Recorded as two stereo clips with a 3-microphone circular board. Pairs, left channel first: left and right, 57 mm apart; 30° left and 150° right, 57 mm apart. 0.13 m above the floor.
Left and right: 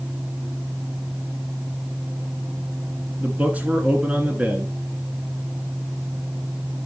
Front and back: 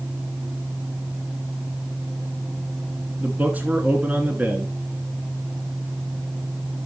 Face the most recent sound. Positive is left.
turn(degrees=-125)